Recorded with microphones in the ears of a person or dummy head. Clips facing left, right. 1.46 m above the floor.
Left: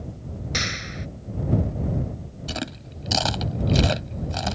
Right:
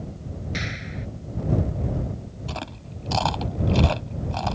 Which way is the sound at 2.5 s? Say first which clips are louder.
Left 4 dB; 25° left (ahead or behind).